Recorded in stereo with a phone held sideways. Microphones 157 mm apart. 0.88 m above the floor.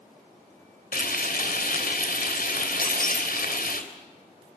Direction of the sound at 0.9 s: 85° left.